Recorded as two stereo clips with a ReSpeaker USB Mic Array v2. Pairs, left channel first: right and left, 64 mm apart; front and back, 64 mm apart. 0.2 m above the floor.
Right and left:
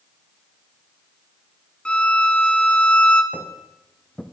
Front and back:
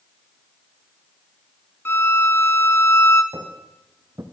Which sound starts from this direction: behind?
Footsteps, at 3.3 s.